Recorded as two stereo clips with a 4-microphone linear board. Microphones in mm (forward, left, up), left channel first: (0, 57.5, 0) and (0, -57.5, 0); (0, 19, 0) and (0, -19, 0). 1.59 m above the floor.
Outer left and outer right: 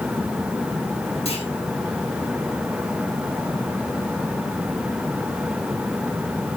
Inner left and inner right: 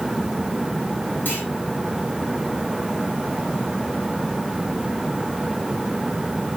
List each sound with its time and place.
1.2 s a clunk: 55° left (ahead or behind), 8.5 m